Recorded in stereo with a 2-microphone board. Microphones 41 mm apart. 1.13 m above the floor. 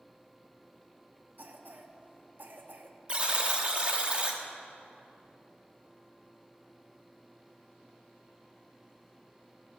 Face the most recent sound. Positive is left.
turn(degrees=-30)  # may be behind; listen again after turning